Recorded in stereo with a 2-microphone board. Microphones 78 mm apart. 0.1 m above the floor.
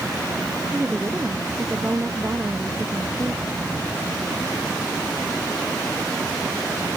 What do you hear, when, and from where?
0.7 s a woman speaking: 25° right (ahead or behind)